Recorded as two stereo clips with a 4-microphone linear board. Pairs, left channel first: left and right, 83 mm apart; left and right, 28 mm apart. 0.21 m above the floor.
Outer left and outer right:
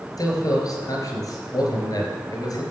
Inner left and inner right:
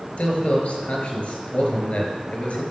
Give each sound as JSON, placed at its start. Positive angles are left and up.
{"t": 0.2, "sound": "a man speaking", "side_deg": 50, "distance_m": 3.5}